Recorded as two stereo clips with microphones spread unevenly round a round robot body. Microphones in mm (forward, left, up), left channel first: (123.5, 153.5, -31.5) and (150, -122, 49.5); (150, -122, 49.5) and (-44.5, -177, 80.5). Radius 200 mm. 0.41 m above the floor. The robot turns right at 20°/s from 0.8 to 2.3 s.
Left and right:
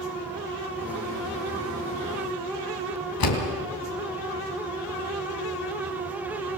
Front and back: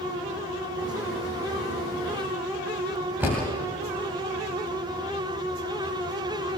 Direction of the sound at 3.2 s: 110° left.